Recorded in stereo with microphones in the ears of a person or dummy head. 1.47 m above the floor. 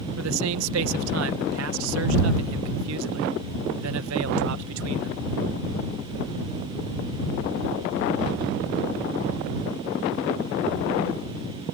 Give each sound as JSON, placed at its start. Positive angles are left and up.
{"t": 0.2, "sound": "a man speaking", "side_deg": -80}